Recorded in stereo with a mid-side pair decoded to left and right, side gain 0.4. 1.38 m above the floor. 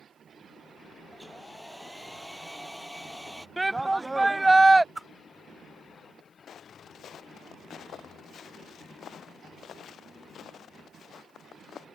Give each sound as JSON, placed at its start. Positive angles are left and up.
{"t": 1.1, "sound": "a hair dryer", "azimuth_deg": 5}
{"t": 3.6, "sound": "a shout", "azimuth_deg": -15}
{"t": 5.0, "sound": "a whoosh", "azimuth_deg": -15}
{"t": 6.5, "sound": "footsteps", "azimuth_deg": 65}